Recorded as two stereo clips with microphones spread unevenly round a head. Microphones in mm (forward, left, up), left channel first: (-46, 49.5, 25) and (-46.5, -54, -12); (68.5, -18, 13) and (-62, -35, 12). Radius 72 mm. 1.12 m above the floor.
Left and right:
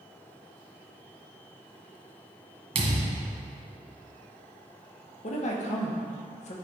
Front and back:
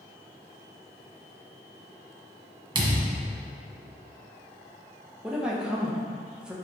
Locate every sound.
2.8 s a thud: 125° right, 1.5 m
5.2 s a woman speaking: 105° left, 1.2 m